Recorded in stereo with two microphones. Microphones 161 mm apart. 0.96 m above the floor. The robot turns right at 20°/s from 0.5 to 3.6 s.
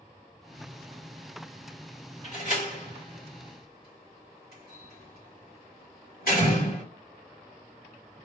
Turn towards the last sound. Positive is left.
turn(degrees=75)  # may be behind; listen again after turning